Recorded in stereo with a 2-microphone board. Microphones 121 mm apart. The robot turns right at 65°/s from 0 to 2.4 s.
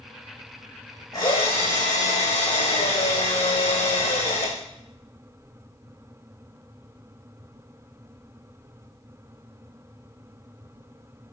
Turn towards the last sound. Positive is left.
turn(degrees=115)